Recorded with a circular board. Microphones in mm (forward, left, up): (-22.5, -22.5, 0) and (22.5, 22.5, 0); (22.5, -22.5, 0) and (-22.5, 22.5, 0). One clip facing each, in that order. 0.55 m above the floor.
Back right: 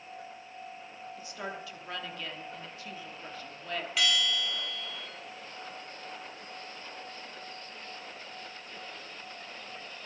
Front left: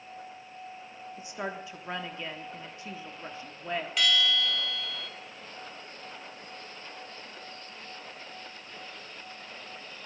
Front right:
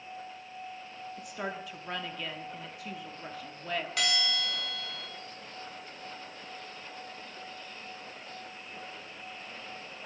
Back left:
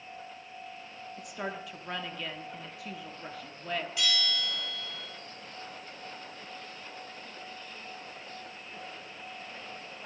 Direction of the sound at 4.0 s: 45° right.